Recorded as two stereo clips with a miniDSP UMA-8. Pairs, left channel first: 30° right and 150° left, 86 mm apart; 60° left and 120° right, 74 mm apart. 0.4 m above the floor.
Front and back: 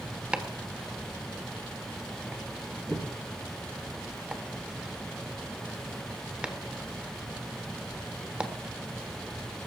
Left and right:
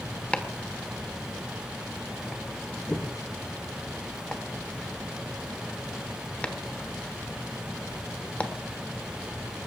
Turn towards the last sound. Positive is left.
turn(degrees=95)